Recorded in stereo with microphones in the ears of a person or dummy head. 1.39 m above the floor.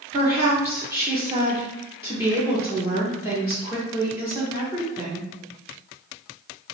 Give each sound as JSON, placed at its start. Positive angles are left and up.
{"t": 0.1, "sound": "a woman speaking", "side_deg": -15, "distance_m": 0.8}